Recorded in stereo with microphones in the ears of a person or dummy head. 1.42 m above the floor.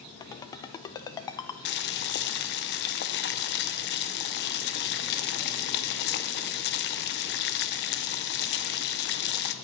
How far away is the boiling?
About 0.6 m.